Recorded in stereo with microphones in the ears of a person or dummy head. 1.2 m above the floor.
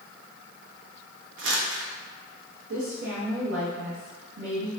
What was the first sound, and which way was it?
Crumpling, 70° right (ahead or behind).